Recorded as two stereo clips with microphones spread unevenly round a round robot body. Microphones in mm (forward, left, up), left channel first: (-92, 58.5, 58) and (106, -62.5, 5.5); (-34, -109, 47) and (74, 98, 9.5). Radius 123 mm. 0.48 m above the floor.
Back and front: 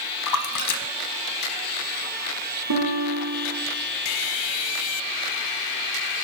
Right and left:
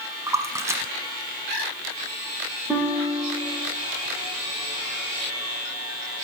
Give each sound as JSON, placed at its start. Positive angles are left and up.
{"t": 0.3, "sound": "a splash", "azimuth_deg": 145, "distance_m": 1.0}
{"t": 2.7, "sound": "a guitar", "azimuth_deg": -35, "distance_m": 6.0}